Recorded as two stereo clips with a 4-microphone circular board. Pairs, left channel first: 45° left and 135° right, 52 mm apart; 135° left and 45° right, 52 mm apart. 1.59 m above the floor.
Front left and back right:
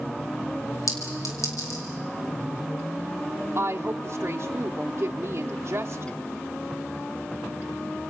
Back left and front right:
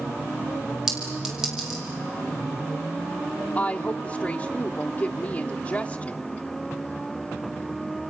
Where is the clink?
35° left, 4.5 m.